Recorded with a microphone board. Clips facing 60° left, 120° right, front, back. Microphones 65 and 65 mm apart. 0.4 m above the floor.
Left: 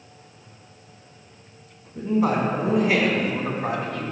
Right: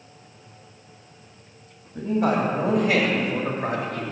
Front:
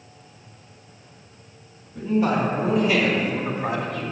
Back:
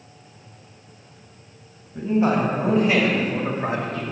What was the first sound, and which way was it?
A man speaking, 120° right.